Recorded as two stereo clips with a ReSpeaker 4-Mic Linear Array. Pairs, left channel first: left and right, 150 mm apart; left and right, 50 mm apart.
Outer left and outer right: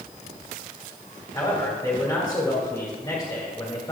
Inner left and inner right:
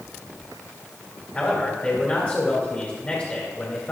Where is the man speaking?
30° left (ahead or behind), 1.9 m.